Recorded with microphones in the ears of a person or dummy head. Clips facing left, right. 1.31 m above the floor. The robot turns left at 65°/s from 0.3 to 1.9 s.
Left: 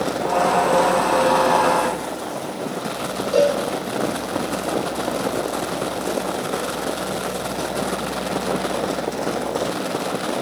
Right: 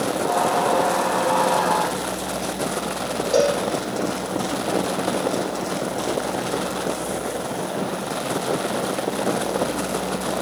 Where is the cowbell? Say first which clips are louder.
Left 2 dB; 10° right (ahead or behind), 8 m.